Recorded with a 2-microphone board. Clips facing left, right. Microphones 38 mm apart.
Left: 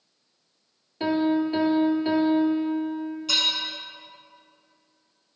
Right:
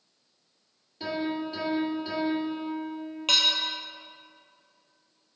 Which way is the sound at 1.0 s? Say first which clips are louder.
Left 8 dB; 40° left (ahead or behind).